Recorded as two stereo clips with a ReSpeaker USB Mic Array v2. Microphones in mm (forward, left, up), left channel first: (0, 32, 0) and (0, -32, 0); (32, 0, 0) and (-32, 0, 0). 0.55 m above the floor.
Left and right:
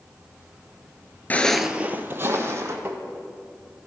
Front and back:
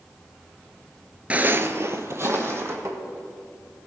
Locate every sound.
1.3 s footsteps: 130° left, 0.6 m; by 2.8 s 135° right, 1.8 m
2.9 s tapping: 145° right, 1.2 m